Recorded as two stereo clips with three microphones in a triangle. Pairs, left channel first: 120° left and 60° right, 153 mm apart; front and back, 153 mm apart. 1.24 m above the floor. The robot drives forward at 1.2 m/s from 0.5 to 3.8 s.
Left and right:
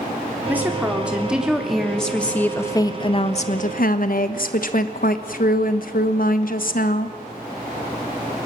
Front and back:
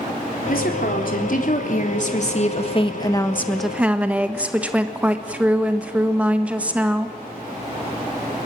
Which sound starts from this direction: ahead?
A woman speaking, at 0.5 s.